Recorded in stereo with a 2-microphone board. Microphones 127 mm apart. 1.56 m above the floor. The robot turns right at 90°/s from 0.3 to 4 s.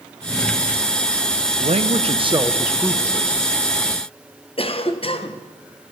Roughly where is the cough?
Left.